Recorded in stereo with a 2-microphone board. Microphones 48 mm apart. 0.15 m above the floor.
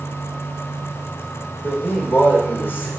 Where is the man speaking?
45° left (ahead or behind), 8.5 m.